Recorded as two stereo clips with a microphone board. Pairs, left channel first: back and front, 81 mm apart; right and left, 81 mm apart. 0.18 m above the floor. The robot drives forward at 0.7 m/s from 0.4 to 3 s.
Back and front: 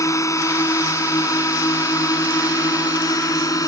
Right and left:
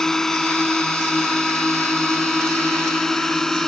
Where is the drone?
170° right.